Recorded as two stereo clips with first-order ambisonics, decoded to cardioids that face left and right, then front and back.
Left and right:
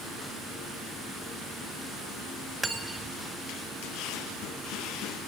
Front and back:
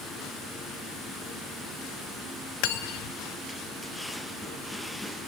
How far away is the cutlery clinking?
About 1.7 m.